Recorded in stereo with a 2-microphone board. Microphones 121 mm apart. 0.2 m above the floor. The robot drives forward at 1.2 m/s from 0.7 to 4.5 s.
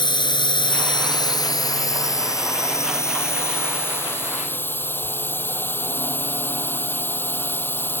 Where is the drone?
40° left (ahead or behind); by 8.0 s 20° left (ahead or behind).